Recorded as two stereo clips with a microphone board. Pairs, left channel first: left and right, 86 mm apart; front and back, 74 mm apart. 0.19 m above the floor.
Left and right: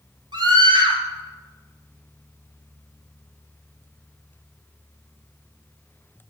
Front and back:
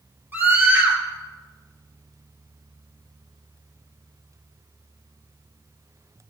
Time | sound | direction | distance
0.3 | a scream | 115° right | 3.5 m